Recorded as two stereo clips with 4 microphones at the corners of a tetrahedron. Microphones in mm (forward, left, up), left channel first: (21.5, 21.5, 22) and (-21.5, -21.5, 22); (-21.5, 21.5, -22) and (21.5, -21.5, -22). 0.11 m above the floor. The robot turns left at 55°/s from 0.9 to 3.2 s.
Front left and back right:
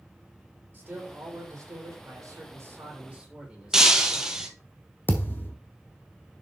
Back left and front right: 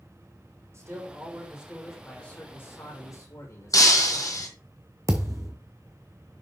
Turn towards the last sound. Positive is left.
turn(degrees=-10)